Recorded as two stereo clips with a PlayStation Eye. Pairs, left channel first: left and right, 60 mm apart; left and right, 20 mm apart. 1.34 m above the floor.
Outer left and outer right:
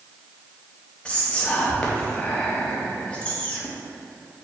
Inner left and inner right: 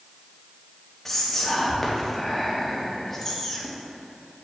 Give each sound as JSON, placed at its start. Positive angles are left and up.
{"t": 1.1, "sound": "whispering", "side_deg": 20, "distance_m": 0.8}